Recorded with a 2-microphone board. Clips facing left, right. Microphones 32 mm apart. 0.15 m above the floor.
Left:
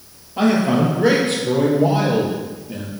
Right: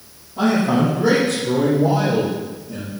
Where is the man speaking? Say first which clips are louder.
Left 1 dB; 65° left (ahead or behind), 4 m; by 2.9 s 50° left (ahead or behind), 4 m.